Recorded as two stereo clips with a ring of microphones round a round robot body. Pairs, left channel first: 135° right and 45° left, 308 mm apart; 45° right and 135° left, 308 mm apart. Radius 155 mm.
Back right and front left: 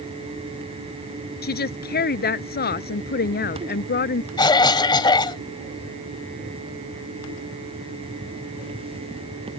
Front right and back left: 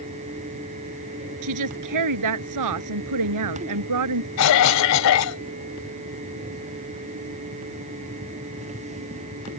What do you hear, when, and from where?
1.4 s a woman speaking: 165° left
4.4 s a cough: 60° right